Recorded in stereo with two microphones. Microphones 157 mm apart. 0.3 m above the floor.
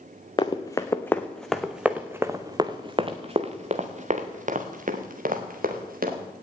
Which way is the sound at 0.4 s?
30° left (ahead or behind).